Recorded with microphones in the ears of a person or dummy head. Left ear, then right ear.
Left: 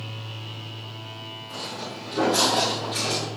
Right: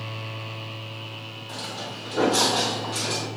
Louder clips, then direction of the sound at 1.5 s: Right 1 dB; 25° right (ahead or behind).